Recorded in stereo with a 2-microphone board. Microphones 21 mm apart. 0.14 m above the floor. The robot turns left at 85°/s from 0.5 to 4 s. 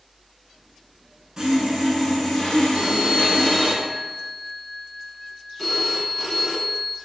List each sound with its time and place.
1.4 s sawing: 140° right, 0.8 m; by 3.7 s 20° left, 0.8 m
2.7 s a phone ringing: 30° right (ahead or behind), 0.6 m; by 7.0 s centre (ahead or behind), 0.6 m